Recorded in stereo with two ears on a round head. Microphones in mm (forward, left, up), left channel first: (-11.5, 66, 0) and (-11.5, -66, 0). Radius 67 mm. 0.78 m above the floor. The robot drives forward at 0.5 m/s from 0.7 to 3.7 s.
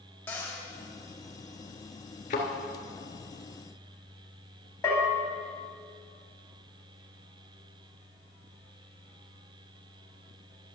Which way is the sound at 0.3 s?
15° left (ahead or behind).